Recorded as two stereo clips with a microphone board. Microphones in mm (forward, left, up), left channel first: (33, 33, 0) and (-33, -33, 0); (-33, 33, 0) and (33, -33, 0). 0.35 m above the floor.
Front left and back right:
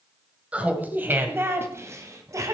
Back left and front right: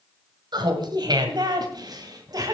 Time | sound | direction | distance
0.5 | laughter | 65° right | 1.8 m